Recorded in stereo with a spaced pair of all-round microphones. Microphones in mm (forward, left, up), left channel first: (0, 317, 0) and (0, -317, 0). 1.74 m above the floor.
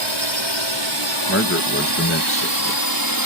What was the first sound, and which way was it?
A drone, 45° right (ahead or behind).